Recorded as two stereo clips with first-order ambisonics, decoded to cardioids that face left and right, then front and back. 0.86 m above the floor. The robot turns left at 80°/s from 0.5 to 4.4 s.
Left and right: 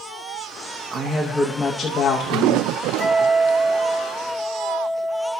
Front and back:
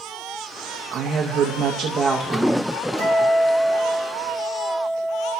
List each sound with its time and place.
0.9 s a woman speaking: 125° right, 0.8 m; by 2.7 s 90° left, 0.8 m
3.0 s a guitar: 120° right, 3.5 m; by 5.3 s 130° left, 3.5 m